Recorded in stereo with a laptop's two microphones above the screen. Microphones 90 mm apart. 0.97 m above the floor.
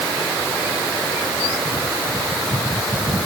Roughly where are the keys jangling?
I don't hear keys jangling.